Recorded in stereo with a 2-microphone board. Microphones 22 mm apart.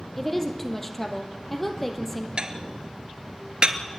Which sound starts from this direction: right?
Dishes clattering, at 2.4 s.